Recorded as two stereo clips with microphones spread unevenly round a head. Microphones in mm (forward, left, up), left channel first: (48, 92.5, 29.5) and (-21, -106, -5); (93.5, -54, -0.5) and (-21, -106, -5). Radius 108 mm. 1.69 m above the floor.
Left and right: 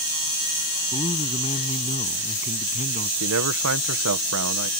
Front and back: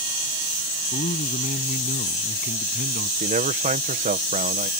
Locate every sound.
0.9 s a man speaking: 5° left; by 3.1 s 15° left
3.2 s a man speaking: 135° right